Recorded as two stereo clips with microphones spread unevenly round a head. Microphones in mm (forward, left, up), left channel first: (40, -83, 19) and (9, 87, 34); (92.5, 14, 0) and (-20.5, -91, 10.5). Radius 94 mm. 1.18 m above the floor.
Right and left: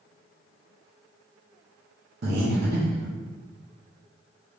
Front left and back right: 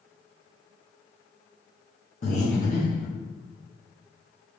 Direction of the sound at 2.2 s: 95° left.